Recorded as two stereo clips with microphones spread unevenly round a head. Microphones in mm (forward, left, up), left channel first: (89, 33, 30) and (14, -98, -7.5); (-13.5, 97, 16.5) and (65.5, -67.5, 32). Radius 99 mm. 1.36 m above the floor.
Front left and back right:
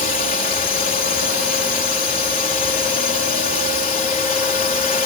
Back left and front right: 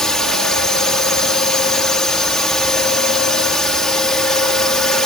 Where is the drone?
30° left.